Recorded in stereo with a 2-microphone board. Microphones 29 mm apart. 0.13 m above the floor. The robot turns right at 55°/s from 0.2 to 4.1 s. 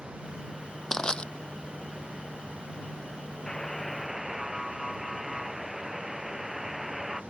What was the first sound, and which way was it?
Crushing, 20° left (ahead or behind).